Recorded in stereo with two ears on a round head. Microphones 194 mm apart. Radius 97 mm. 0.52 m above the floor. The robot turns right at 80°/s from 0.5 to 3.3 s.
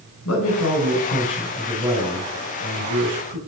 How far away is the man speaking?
About 2.5 m.